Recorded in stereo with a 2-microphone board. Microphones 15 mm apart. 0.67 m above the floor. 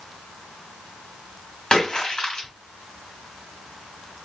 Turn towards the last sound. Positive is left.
turn(degrees=50)  # may be behind; listen again after turning